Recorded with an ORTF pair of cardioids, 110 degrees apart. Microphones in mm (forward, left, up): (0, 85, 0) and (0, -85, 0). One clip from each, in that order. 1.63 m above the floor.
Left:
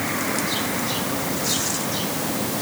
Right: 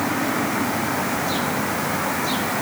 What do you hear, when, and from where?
Only background noise.